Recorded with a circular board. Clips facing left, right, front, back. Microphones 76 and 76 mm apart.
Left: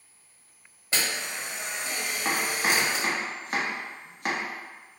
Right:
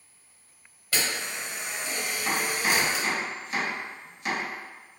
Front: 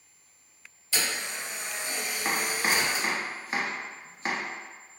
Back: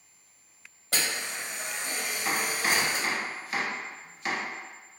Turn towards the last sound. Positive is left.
turn(degrees=55)